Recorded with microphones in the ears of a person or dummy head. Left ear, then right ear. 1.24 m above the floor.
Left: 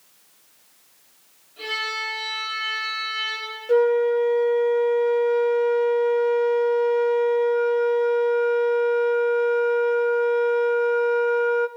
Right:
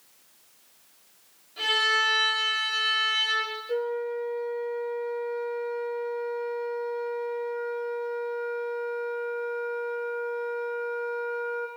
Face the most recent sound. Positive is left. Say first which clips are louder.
# left 14 dB
turn(degrees=75)  # may be behind; listen again after turning